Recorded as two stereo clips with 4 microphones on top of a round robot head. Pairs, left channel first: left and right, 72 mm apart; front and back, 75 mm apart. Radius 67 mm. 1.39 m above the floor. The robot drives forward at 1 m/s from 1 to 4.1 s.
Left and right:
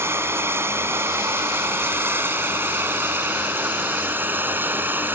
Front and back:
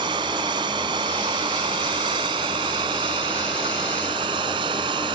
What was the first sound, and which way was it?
Running water, 145° right.